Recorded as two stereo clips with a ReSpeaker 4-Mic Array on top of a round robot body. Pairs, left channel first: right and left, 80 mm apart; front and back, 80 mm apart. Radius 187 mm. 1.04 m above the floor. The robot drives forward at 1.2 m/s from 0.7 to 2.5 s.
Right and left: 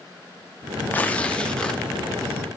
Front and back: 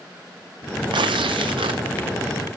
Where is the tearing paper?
160° right, 0.8 m; by 1.8 s 170° right, 1.8 m.